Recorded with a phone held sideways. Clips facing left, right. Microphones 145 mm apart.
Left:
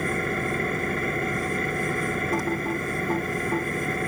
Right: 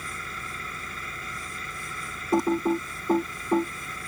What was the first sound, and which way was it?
An engine running, 60° left (ahead or behind).